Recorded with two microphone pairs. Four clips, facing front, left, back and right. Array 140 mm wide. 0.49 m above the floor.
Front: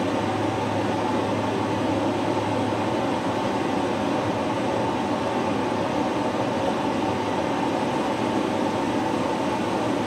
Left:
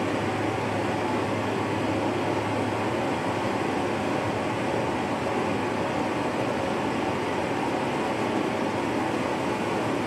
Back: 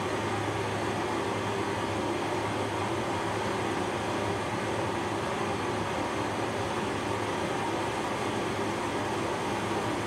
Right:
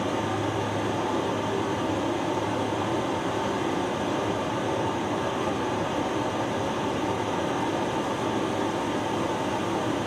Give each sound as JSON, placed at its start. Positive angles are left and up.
{"t": 0.0, "sound": "running water", "azimuth_deg": 35, "distance_m": 3.5}